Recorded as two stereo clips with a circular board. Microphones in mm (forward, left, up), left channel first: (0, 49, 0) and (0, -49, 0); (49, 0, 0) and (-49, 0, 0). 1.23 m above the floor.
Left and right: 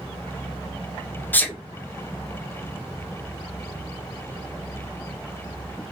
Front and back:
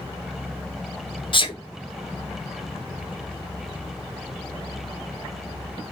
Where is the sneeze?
20° left, 0.6 m.